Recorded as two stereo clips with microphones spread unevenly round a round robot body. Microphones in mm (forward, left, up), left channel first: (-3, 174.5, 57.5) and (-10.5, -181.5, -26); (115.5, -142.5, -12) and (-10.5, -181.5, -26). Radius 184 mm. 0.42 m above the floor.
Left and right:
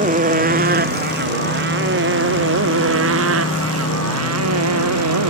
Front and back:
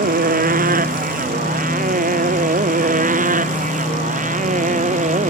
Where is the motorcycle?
160° right; by 5.3 s 140° right.